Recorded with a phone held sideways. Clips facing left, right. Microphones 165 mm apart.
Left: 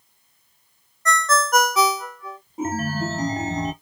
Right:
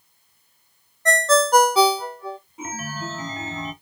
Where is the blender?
No blender in this recording.